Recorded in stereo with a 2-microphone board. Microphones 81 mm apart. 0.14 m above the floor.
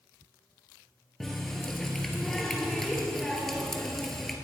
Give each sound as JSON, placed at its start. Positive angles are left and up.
{"t": 1.2, "sound": "a running tap", "side_deg": 5, "distance_m": 1.9}